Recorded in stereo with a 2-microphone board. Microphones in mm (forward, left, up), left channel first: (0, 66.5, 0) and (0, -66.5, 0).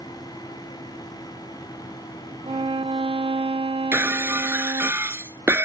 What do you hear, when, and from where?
2.5 s a violin: 45° right (ahead or behind)
3.9 s breaking glass: 15° right (ahead or behind)